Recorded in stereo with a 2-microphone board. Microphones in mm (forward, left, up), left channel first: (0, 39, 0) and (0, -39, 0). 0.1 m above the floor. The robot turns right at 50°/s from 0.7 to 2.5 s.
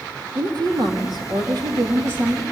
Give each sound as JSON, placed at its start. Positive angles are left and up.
{"t": 0.3, "sound": "a woman speaking", "azimuth_deg": -115, "distance_m": 3.0}